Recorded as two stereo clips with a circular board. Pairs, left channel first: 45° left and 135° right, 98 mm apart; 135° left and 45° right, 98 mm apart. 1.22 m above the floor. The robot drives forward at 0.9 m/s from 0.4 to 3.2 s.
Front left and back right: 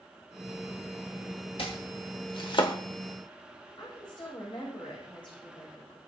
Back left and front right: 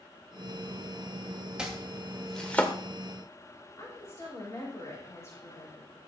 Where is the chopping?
35° left, 1.9 m; by 2.8 s 65° left, 1.3 m.